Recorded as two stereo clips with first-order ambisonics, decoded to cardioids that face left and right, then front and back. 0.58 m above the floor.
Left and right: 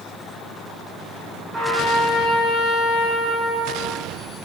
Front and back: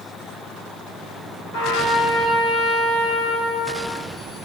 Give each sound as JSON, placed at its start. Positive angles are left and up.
{"t": 1.5, "sound": "a trumpet", "azimuth_deg": -10, "distance_m": 2.5}